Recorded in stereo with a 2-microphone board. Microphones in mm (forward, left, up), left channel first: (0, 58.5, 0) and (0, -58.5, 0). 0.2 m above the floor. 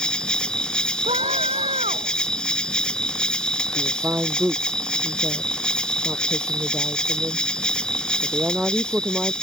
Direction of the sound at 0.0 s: 5° left (ahead or behind).